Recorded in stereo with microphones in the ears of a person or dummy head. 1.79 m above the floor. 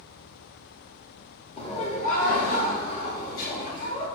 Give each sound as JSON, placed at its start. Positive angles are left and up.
{"t": 1.6, "sound": "laughter", "side_deg": 30, "distance_m": 0.8}